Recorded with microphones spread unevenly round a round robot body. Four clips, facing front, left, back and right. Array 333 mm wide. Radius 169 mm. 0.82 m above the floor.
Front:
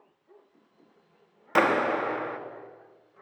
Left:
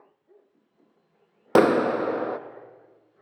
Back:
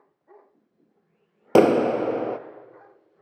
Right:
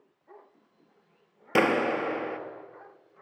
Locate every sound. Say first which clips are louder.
1.6 s a clap: left 6 dB, back 7 dB; 150° left, 0.8 m